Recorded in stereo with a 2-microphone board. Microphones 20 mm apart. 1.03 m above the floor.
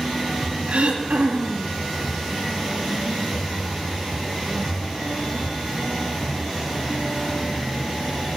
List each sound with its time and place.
0.7 s throat clearing: 75° right (ahead or behind), 1.8 m